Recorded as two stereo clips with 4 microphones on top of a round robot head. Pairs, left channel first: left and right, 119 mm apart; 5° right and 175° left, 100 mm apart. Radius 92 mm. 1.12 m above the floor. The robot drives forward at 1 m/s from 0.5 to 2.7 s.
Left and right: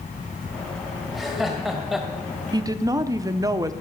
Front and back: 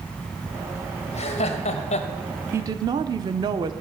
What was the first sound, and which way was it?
Laughter, straight ahead.